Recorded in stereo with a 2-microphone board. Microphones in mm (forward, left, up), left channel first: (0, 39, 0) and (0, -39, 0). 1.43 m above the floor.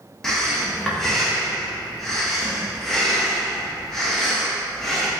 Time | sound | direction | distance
0.2 | breathing | 5° left (ahead or behind) | 0.8 m